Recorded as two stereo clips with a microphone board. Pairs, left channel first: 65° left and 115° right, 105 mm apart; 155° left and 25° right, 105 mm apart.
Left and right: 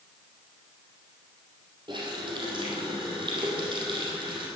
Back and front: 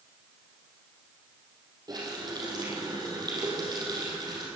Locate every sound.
1.9 s a running tap: 70° right, 4.5 m